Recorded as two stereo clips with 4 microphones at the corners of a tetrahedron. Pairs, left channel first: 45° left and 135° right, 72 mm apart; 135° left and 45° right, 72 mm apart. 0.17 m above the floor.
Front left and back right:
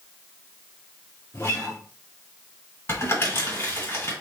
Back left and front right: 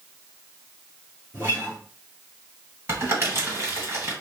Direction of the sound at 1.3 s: Straight ahead.